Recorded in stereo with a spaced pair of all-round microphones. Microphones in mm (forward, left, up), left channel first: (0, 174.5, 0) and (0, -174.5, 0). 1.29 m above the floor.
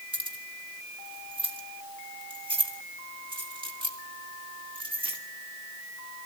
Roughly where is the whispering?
No whispering in this recording.